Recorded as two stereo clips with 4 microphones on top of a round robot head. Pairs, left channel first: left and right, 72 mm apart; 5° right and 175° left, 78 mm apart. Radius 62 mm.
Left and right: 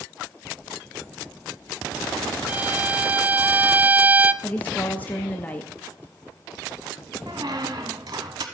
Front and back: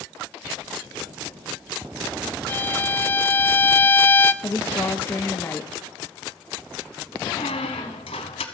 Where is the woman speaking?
30° left, 0.7 m.